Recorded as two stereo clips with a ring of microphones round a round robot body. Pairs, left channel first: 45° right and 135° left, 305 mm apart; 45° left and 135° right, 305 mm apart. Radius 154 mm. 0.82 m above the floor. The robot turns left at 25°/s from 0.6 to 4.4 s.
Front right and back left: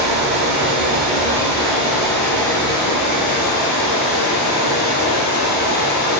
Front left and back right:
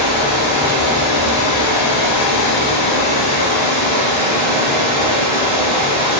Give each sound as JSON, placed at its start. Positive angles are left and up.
{"t": 0.0, "sound": "running water", "azimuth_deg": 80, "distance_m": 0.8}